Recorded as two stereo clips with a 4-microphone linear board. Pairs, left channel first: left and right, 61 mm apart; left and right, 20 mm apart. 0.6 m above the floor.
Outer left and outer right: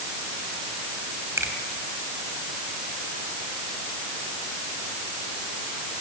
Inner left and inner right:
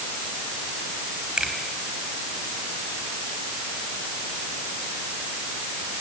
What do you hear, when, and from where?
1.4 s a finger snap: 50° right (ahead or behind), 4 m